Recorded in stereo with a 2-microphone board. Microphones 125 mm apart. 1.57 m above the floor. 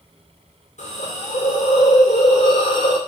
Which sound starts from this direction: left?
A hiss, at 0.8 s.